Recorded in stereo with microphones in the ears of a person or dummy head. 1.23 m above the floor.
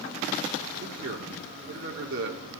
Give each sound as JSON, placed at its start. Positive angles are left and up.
{"t": 0.8, "sound": "a man speaking", "side_deg": -60, "distance_m": 1.4}